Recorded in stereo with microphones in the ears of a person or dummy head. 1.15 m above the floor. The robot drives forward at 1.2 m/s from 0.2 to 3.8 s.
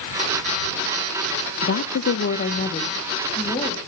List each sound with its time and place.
1.6 s a woman speaking: 60° left (ahead or behind), 0.7 m; by 3.8 s 15° left (ahead or behind), 2.5 m